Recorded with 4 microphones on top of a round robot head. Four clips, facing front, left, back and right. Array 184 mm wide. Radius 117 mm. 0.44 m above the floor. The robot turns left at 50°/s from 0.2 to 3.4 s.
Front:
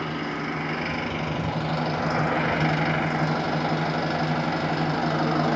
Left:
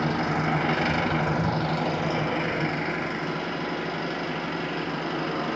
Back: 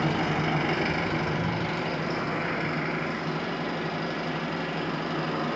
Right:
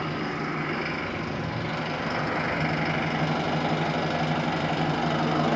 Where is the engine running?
125° left, 2.5 m; by 5.6 s 35° right, 2.5 m.